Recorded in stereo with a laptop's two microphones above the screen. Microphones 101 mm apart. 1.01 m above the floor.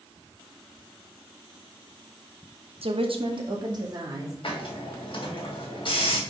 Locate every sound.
2.8 s a woman speaking: 65° right (ahead or behind), 0.9 m; by 4.3 s 35° right (ahead or behind), 2.5 m
4.4 s a hiss: 55° left (ahead or behind), 2.5 m